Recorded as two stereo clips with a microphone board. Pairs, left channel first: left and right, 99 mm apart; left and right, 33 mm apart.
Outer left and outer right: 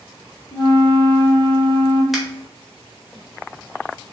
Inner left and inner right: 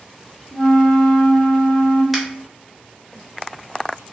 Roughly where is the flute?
Left.